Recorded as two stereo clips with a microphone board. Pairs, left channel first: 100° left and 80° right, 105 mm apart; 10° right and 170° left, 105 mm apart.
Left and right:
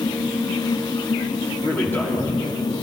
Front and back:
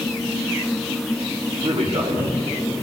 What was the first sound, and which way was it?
A man speaking, 175° left.